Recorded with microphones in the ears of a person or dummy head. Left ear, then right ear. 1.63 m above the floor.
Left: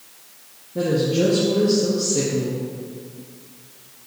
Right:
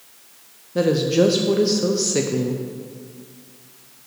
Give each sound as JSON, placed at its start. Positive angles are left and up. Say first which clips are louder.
{"t": 0.8, "sound": "a woman speaking", "louder": "right 3 dB", "side_deg": -65, "distance_m": 0.6}